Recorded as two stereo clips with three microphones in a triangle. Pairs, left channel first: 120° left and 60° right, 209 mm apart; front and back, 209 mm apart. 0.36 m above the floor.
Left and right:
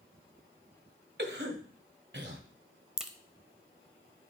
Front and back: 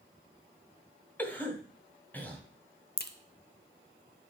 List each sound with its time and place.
1.2 s a cough: 80° right, 1.9 m
3.0 s a crack: 25° left, 0.8 m